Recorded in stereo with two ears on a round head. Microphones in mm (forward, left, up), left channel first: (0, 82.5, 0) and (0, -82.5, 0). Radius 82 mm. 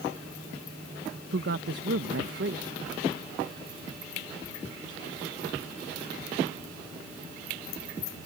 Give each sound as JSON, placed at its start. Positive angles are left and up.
{"t": 1.3, "sound": "a woman speaking", "side_deg": -65}